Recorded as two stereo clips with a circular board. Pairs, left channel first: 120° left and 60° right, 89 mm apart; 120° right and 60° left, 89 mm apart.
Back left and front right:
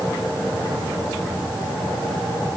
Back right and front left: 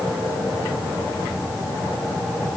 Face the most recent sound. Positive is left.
No sound to turn to.